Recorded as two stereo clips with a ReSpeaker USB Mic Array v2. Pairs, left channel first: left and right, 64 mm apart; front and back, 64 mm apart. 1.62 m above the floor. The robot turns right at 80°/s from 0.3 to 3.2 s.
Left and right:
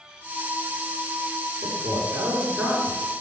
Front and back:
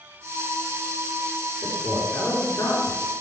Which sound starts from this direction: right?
A man speaking, at 1.6 s.